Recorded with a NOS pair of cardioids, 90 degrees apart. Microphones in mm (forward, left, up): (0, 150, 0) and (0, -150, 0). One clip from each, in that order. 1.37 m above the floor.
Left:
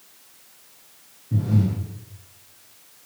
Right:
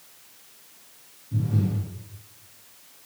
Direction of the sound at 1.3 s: 55° left.